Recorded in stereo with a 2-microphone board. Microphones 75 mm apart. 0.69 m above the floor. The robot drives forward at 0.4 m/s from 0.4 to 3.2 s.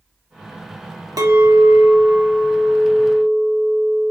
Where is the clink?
50° right (ahead or behind), 0.7 m; by 4.1 s 25° right (ahead or behind), 1.3 m.